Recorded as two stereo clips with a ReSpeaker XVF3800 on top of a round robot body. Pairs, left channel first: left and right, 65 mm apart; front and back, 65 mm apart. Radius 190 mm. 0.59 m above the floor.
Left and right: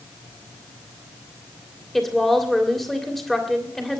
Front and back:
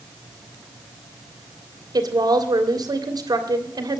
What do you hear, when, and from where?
1.9 s a woman speaking: 175° left, 3 m